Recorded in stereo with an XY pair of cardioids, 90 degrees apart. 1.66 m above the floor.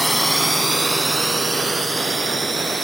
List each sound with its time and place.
0.0 s a drone: 10° left; by 2.8 s 30° right